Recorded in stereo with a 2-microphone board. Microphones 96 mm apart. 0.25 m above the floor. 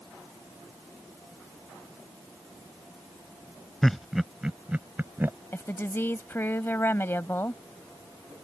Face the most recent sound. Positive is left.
turn(degrees=25)  # may be behind; listen again after turning